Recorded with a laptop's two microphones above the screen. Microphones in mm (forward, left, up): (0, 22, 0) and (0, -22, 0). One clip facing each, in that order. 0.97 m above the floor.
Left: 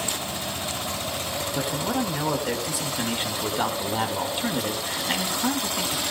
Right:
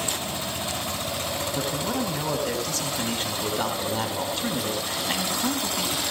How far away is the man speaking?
About 4.5 m.